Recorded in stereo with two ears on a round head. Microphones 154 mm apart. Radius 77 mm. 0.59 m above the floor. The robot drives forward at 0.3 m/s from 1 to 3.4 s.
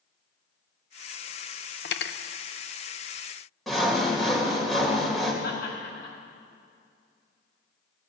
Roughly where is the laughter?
Left.